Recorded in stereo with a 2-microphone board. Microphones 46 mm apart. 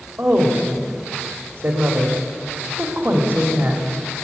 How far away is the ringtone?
No ringtone in this recording.